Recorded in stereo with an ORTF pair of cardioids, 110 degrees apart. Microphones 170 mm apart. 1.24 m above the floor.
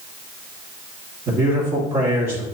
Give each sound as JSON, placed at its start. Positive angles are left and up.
{"t": 1.3, "sound": "a man speaking", "azimuth_deg": -40, "distance_m": 2.5}